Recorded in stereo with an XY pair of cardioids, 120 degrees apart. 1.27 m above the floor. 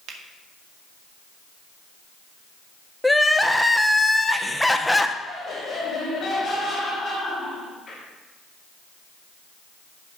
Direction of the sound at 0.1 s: 70° right.